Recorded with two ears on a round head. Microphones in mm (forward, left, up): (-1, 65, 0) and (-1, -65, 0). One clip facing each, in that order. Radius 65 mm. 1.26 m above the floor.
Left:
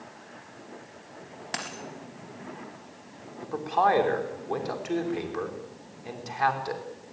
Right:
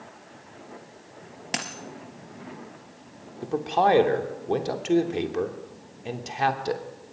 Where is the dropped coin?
25° right (ahead or behind), 3 m.